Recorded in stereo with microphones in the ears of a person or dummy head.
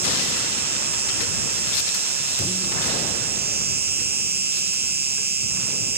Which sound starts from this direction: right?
An insect, at 0.0 s.